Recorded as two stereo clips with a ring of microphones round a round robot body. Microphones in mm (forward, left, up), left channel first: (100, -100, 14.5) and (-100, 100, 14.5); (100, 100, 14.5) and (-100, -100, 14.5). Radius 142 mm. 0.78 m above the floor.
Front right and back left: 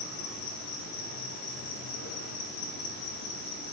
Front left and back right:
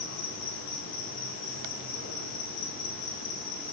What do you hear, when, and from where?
0.0 s an insect: 5° right, 1.5 m